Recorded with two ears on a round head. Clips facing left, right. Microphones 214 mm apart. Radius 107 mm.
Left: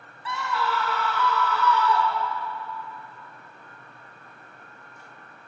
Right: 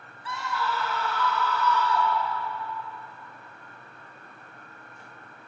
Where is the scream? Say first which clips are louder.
Left 3 dB; 55° left (ahead or behind), 1.3 m.